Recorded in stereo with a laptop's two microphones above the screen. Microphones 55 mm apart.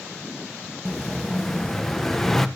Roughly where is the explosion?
Centre.